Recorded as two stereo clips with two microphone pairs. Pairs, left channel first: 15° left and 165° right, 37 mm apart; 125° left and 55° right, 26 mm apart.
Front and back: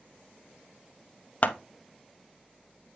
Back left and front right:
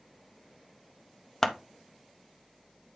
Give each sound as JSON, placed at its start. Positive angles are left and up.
{"t": 1.4, "sound": "scissors", "azimuth_deg": 55, "distance_m": 0.9}